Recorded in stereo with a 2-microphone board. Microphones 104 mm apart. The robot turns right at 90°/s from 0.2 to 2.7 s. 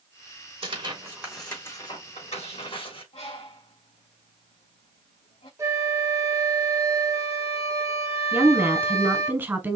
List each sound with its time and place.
0.6 s tearing paper: 65° right (ahead or behind), 4 m; by 3.0 s 60° left (ahead or behind), 4 m
3.1 s a bird: 80° left, 3 m
5.6 s a flute: 30° right (ahead or behind), 2.5 m
8.3 s a woman speaking: 20° right (ahead or behind), 1.2 m